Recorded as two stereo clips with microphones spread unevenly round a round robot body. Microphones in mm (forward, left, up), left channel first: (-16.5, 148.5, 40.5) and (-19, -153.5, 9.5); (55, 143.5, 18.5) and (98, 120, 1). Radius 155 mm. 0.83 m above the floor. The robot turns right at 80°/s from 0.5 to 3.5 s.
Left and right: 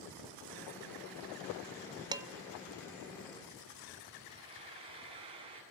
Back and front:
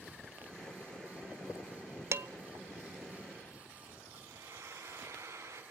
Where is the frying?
15° right, 7.5 m.